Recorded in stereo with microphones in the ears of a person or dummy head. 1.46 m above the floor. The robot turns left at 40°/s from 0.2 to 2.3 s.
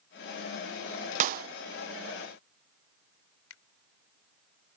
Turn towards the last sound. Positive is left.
turn(degrees=80)